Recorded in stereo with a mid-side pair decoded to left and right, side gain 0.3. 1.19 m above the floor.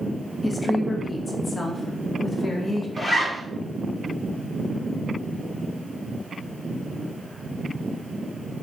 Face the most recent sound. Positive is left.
turn(degrees=30)